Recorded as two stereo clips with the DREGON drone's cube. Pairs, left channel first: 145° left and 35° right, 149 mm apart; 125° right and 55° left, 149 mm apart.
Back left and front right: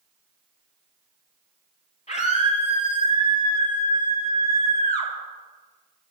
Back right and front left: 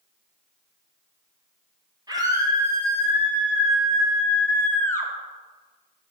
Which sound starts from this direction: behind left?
A scream, at 2.1 s.